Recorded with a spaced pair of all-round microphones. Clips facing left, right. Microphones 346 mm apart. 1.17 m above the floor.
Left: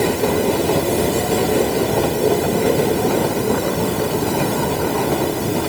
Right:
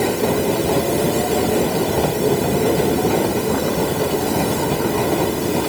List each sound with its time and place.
Only background noise.